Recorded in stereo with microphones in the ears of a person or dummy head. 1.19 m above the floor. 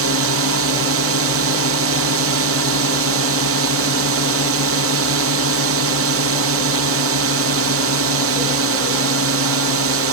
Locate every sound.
0.0 s a drone: 60° right (ahead or behind)